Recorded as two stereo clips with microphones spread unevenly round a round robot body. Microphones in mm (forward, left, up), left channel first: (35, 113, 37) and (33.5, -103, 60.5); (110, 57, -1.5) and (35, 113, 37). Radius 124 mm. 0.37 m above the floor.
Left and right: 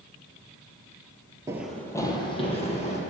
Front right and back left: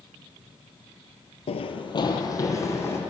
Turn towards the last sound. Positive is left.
turn(degrees=30)